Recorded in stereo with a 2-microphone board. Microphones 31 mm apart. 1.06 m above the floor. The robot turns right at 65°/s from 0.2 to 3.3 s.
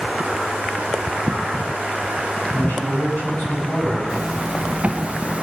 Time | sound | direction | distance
2.5 | a man speaking | 70° left | 6.5 m
4.1 | a zipper | 40° right (ahead or behind) | 1.1 m